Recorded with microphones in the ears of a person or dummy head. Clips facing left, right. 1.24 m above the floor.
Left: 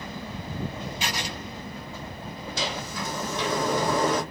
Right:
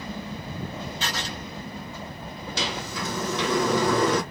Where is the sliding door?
60° right (ahead or behind), 0.8 m.